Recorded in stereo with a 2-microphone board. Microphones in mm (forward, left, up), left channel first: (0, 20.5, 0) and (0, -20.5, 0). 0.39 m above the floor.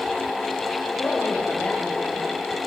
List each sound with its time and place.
1.0 s a woman speaking: 40° left (ahead or behind), 9 m